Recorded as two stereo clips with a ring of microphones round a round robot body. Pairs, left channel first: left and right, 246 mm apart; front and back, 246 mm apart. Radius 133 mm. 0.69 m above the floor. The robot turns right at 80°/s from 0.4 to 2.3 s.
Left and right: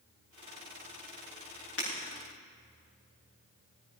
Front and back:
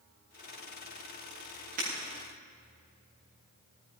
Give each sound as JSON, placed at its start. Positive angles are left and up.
{"t": 1.8, "sound": "breaking glass", "azimuth_deg": 120, "distance_m": 6.5}